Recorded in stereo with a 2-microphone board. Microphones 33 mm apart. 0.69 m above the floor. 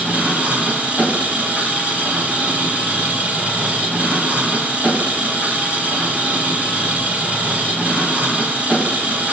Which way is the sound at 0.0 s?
50° right (ahead or behind).